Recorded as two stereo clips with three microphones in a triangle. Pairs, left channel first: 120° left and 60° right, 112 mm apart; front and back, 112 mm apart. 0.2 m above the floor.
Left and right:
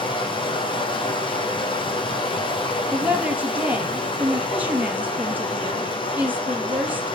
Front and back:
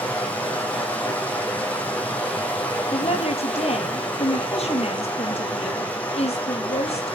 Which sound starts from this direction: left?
Running water, at 0.0 s.